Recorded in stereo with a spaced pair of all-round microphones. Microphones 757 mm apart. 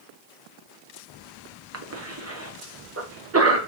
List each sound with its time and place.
1.7 s a cough: 20° right (ahead or behind), 0.8 m